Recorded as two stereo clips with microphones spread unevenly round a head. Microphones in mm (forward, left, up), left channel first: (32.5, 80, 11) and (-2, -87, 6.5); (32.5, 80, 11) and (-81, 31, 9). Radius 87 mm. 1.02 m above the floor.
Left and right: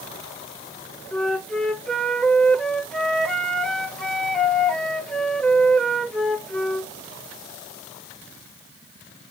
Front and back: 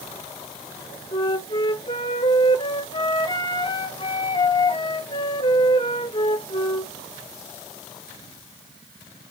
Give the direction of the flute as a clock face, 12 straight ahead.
12 o'clock.